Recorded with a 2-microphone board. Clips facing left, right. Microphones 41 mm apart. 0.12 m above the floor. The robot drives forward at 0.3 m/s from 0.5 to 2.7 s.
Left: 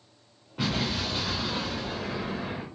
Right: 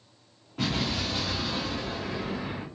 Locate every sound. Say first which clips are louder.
0.6 s an explosion: even; 5° left (ahead or behind), 2 m